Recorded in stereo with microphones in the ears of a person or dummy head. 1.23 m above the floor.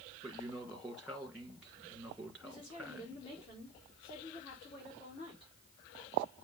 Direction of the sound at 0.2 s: 10° right (ahead or behind).